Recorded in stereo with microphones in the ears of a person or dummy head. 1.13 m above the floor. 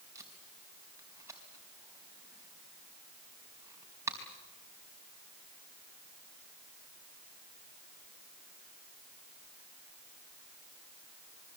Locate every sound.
0.1 s tape being pulled: 15° right (ahead or behind), 4 m